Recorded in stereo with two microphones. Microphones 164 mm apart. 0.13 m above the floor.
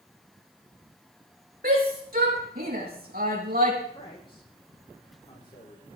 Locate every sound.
1.6 s a shout: 65° right (ahead or behind), 6 m
3.9 s a man speaking: 30° left (ahead or behind), 9.5 m